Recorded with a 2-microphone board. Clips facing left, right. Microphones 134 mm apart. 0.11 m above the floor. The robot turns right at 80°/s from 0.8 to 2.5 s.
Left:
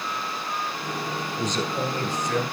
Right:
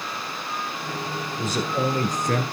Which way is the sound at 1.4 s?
Straight behind.